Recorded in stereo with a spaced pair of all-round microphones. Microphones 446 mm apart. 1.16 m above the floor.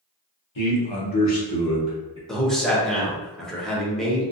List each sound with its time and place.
0.6 s a man speaking: 80° left, 1.0 m; by 2.2 s 15° right (ahead or behind), 1.1 m
2.3 s a man speaking: centre (ahead or behind), 0.9 m